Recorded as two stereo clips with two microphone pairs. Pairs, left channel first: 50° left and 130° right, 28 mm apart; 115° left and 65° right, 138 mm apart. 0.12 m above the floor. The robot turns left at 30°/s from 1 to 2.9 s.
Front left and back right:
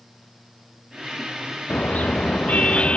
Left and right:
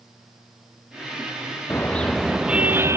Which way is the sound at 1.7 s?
40° left.